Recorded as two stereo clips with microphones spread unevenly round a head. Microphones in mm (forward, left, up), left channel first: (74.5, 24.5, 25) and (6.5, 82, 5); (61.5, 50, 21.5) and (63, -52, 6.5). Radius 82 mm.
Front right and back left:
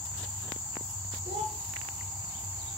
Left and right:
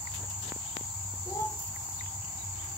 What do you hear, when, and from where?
1.2 s a child speaking: 160° left, 1.5 m